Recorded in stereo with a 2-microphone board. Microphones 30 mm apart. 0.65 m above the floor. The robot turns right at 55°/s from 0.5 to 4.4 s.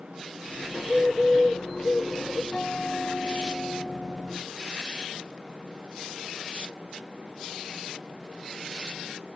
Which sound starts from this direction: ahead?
A bird, at 0.7 s.